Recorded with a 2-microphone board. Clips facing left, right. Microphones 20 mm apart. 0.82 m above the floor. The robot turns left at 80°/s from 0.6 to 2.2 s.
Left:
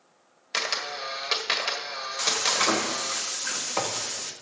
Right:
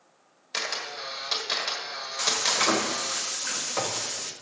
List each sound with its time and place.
0.5 s a camera shutter: 160° left, 1.5 m; by 3.2 s 35° left, 1.5 m
2.2 s frying: 20° left (ahead or behind), 1.0 m